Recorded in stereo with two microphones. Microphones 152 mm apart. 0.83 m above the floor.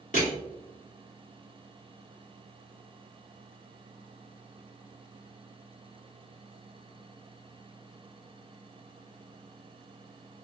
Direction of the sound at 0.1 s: 55° left (ahead or behind).